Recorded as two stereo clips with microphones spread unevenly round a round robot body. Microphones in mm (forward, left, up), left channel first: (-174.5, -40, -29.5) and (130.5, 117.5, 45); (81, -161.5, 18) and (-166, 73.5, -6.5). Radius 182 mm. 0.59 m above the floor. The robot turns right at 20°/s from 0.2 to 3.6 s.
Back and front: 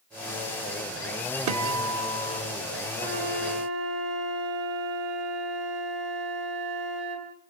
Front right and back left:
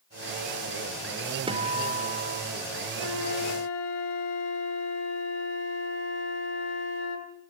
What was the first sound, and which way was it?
A guitar, 65° left.